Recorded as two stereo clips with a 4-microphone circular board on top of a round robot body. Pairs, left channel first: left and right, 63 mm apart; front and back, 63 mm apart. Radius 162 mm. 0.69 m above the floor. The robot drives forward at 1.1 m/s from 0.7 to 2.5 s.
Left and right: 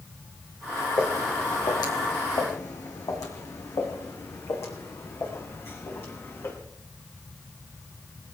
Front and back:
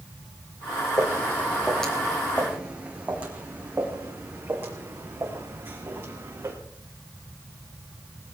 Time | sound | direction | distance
1.0 | footsteps | 50° left | 3 m